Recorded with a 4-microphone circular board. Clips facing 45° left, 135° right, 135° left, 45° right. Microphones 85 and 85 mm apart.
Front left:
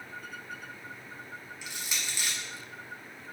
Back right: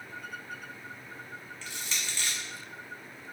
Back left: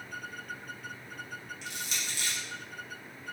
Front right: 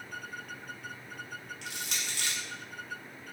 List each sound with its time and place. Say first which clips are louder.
1.6 s crushing: even, even; 30° right, 0.8 m